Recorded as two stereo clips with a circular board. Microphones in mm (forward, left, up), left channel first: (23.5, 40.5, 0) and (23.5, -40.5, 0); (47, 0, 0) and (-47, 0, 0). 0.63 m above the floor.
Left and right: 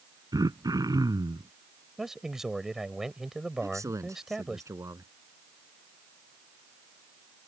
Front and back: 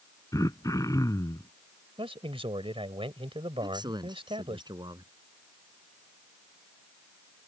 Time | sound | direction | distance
0.3 | throat clearing | 55° right | ?
2.0 | a man speaking | 175° right | ?
3.6 | a man speaking | 140° right | ?